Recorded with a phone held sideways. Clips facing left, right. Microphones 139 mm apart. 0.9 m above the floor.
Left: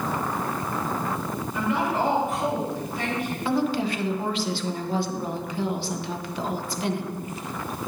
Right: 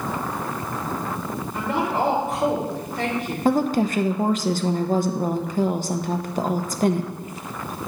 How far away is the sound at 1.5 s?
About 3 m.